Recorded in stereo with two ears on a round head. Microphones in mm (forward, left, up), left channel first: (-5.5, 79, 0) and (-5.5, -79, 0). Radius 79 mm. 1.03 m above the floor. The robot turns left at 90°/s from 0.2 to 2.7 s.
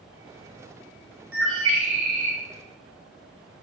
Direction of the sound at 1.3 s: 55° right.